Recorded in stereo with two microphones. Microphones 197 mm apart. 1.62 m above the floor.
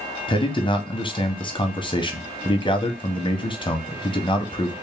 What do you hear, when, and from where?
0.3 s a man speaking: 25° left (ahead or behind), 0.8 m